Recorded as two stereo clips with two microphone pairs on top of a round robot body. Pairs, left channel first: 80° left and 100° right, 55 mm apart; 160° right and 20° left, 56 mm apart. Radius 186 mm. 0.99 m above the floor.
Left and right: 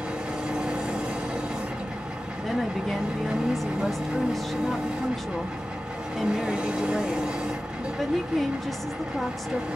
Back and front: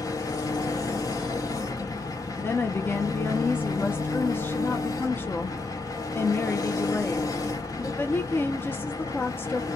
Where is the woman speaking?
175° left, 1.0 m.